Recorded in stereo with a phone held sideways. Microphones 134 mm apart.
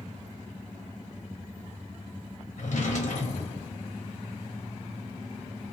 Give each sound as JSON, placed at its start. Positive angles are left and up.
{"t": 2.6, "sound": "a drawer", "side_deg": 65, "distance_m": 1.0}